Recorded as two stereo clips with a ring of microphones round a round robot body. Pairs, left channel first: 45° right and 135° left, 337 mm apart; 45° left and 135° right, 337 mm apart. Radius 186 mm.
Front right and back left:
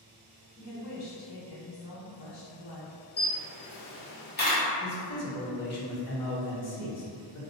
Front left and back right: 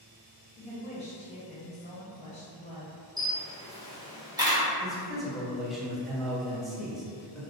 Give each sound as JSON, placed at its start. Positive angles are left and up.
{"t": 0.6, "sound": "a woman speaking", "azimuth_deg": -20, "distance_m": 1.3}
{"t": 3.2, "sound": "a camera shutter", "azimuth_deg": -70, "distance_m": 1.2}
{"t": 4.8, "sound": "a man speaking", "azimuth_deg": -45, "distance_m": 1.2}